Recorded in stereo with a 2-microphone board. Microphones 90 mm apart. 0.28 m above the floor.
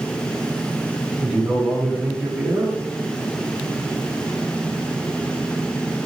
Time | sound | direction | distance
1.2 | a man speaking | 15° right (ahead or behind) | 7.5 m